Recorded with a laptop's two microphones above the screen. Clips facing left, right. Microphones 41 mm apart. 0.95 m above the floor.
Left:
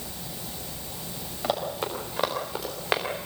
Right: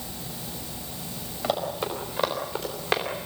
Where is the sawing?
I don't hear sawing.